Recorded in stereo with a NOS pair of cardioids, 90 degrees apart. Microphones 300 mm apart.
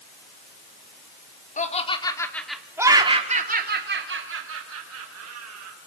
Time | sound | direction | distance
1.6 | laughter | 25° left | 3.5 m